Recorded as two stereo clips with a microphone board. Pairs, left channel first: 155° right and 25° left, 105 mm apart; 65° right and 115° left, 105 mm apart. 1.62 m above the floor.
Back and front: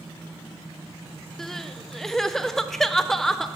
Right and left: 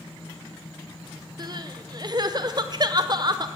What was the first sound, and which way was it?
Crying, 115° left.